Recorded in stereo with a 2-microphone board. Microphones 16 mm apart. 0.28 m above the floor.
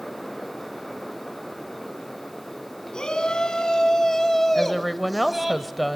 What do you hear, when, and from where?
2.9 s a shout: 55° left (ahead or behind), 3 m; by 5.5 s 15° right (ahead or behind), 2 m
4.5 s a woman speaking: centre (ahead or behind), 1.0 m